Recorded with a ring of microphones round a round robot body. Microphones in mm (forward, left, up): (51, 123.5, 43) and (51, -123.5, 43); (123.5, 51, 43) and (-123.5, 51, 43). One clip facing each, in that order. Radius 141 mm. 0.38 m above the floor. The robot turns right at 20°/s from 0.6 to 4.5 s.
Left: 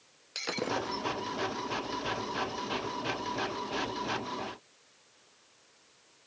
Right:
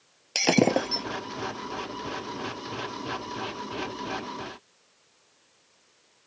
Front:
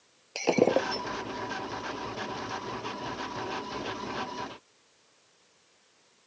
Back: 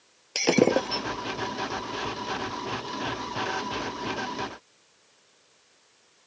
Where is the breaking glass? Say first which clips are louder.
Right 13 dB, back 3 dB; 110° right; by 1.1 s 100° right.